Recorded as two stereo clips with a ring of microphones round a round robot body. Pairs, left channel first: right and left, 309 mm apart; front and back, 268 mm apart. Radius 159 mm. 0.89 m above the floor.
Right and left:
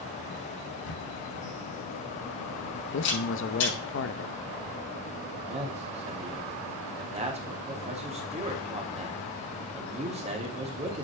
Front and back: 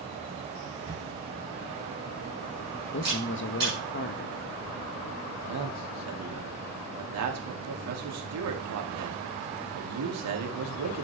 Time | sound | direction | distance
0.8 | a camera shutter | 105° right | 6.5 m
2.9 | a man speaking | 45° right | 1.0 m
5.4 | a man speaking | 160° left | 2 m